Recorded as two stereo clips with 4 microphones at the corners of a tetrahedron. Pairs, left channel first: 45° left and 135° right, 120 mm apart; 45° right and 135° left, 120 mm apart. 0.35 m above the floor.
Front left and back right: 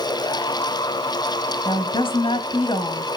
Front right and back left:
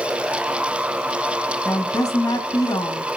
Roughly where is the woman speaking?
Ahead.